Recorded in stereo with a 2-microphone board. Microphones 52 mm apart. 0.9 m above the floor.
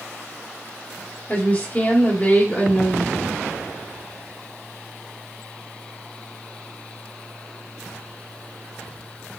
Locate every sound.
1.3 s a woman speaking: 30° left (ahead or behind), 1.5 m